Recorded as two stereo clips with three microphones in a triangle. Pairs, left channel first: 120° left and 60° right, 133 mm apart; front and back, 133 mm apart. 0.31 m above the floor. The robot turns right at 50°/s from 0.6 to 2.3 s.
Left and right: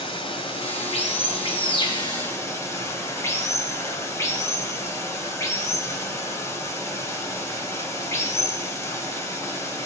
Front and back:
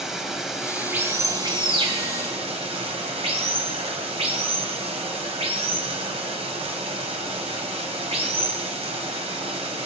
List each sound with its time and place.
0.0 s running water: 95° left, 1.6 m; by 9.9 s straight behind, 1.6 m